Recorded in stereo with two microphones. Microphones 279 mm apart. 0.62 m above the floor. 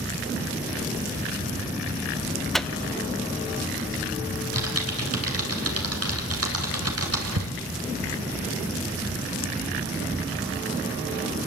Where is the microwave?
Centre (ahead or behind), 0.6 m.